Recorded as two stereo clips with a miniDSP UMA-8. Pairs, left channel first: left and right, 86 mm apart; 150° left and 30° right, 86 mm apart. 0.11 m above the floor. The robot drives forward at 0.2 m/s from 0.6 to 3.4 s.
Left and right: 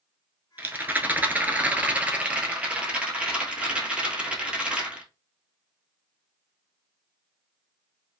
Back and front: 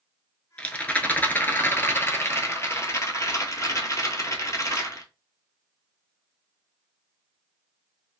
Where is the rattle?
140° right, 0.6 m; by 5.1 s 165° right, 1.0 m.